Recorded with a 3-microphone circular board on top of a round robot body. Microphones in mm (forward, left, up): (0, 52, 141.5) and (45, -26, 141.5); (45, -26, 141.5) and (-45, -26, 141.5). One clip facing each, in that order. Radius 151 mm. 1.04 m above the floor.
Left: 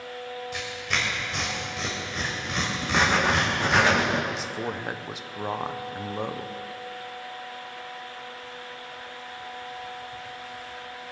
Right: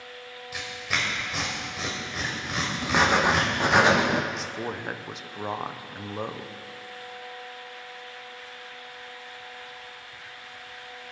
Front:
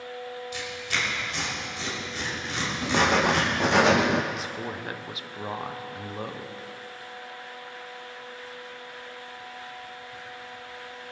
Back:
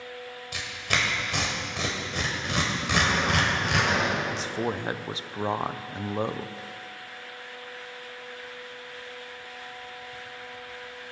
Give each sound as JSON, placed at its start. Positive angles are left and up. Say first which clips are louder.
{"t": 0.5, "sound": "tearing paper", "louder": "right 2 dB, back 4 dB", "azimuth_deg": -145, "distance_m": 1.8}
{"t": 2.8, "sound": "writing", "louder": "right 2 dB, front 5 dB", "azimuth_deg": 15, "distance_m": 0.6}
{"t": 4.3, "sound": "a man speaking", "louder": "left 1 dB, back 4 dB", "azimuth_deg": -150, "distance_m": 0.7}